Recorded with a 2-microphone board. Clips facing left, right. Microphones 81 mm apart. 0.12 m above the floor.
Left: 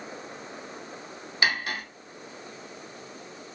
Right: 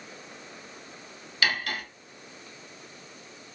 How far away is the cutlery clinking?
About 0.8 m.